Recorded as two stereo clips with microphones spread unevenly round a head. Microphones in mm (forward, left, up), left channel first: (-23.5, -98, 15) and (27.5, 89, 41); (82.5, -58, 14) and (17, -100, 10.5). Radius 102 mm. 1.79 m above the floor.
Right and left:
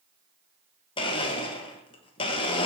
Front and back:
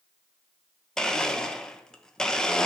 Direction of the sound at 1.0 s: 40° right.